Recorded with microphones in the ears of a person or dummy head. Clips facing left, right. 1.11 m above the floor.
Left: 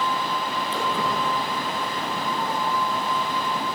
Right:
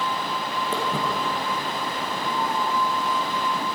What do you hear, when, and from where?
0.7 s footsteps: 35° right (ahead or behind), 2 m; by 3.6 s 10° left (ahead or behind), 2.5 m